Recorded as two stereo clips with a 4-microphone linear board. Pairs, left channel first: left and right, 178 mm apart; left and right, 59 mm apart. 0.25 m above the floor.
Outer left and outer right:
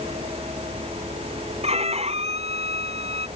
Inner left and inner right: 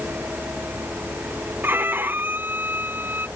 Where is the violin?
35° right (ahead or behind).